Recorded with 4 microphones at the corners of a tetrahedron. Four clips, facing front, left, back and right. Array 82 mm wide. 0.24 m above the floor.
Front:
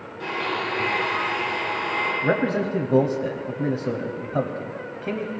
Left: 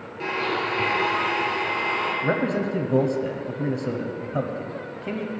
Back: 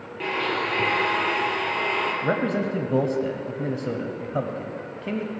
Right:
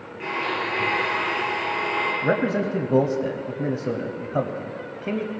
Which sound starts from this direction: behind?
A blender, at 0.2 s.